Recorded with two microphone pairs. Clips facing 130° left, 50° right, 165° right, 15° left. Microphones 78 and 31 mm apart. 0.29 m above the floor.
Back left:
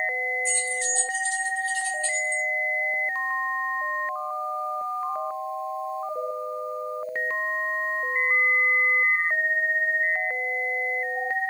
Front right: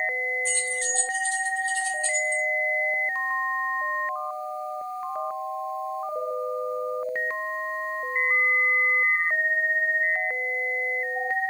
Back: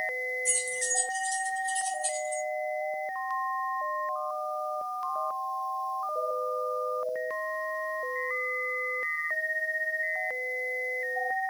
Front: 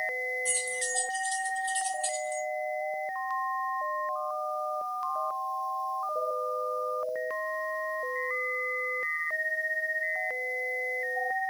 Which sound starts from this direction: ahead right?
Keys jangling, at 0.5 s.